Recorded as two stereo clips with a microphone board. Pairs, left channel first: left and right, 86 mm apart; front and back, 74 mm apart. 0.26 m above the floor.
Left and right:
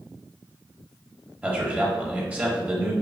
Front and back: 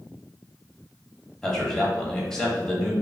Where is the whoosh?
No whoosh in this recording.